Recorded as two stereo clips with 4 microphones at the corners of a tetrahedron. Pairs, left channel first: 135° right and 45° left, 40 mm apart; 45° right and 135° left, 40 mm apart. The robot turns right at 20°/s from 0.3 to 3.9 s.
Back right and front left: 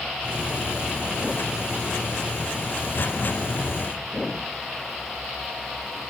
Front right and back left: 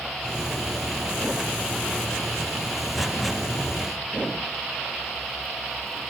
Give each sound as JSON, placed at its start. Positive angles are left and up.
{"t": 3.0, "sound": "an explosion", "azimuth_deg": -95, "distance_m": 0.9}